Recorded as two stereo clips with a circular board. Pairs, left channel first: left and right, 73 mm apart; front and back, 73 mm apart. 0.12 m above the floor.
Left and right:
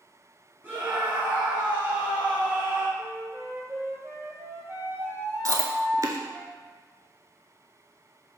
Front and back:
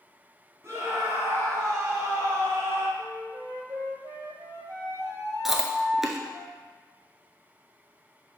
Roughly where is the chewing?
Right.